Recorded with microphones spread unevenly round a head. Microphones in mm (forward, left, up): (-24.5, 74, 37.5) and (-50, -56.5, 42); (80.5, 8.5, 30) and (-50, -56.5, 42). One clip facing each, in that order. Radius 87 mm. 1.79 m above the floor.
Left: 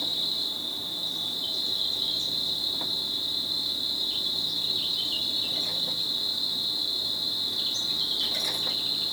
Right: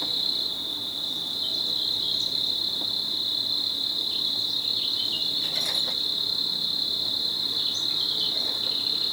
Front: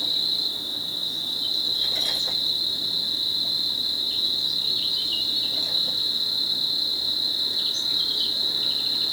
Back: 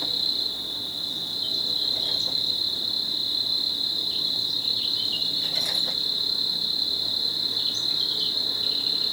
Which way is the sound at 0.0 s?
35° left.